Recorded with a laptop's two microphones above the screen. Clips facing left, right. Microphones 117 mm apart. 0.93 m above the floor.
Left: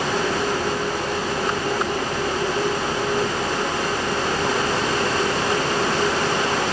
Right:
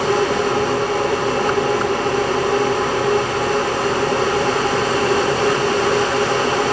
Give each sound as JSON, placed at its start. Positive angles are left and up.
{"t": 0.0, "sound": "a machine running", "side_deg": -70, "distance_m": 3.5}